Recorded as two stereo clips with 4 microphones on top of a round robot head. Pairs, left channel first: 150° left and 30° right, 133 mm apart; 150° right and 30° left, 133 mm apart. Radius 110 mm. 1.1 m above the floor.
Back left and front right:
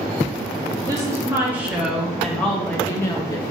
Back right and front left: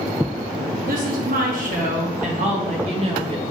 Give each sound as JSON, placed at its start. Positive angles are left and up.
{"t": 0.8, "sound": "a woman speaking", "azimuth_deg": 35, "distance_m": 1.8}